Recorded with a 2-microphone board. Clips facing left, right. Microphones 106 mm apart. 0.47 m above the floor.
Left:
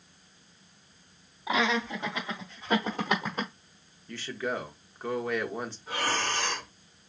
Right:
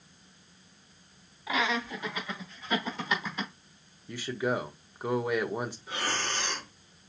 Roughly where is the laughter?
Left.